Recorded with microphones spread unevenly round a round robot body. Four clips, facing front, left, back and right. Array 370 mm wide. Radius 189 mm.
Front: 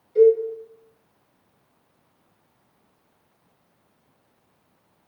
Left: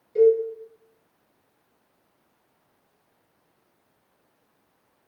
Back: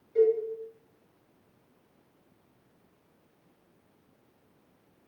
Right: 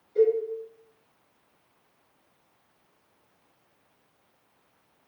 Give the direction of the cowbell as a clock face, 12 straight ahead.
9 o'clock.